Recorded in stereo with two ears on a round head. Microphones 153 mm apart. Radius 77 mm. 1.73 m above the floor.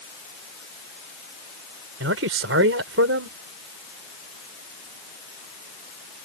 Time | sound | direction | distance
2.0 | a man speaking | 75° right (ahead or behind) | ?